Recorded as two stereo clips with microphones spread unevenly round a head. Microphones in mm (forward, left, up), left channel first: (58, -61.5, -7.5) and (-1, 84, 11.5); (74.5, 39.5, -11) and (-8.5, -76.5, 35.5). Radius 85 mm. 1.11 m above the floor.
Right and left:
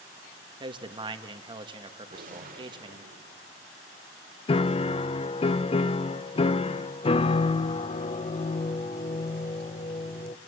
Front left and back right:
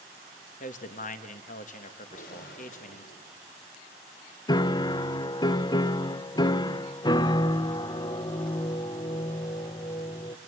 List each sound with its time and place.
0.6 s a man speaking: 50° left, 1.7 m
2.1 s a gunshot: 80° left, 3.5 m
4.5 s a piano: 10° right, 0.6 m